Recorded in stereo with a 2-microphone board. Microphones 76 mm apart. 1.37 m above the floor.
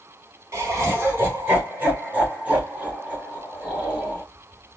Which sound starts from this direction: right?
Laughter, at 0.5 s.